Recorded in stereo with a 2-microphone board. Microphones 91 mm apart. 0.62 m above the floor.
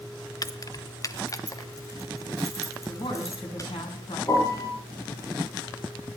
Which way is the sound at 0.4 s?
45° left (ahead or behind).